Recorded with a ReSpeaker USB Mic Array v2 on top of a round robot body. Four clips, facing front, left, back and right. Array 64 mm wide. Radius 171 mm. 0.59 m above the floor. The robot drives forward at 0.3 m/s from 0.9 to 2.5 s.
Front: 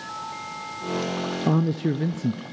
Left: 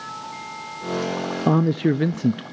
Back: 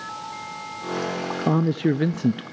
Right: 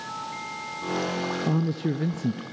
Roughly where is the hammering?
I don't hear hammering.